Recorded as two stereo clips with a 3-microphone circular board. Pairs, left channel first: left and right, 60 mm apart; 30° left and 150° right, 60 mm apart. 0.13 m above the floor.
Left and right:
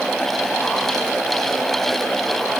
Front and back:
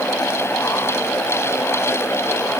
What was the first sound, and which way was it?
Only background noise.